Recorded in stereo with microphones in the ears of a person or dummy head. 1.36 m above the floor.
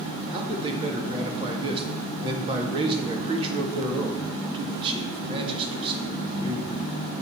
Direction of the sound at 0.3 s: 30° right (ahead or behind).